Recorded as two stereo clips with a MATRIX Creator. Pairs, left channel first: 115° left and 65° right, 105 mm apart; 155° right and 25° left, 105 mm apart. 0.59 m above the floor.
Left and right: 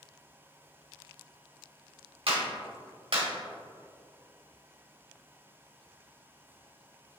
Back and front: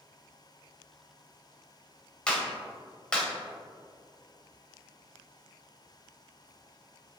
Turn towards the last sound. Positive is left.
turn(degrees=-80)